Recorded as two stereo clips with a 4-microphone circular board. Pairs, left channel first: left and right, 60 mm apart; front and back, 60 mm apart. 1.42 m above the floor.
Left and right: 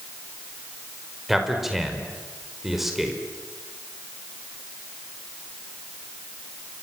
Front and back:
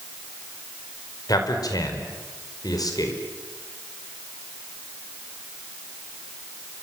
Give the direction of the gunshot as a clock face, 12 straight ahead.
No gunshot in this recording.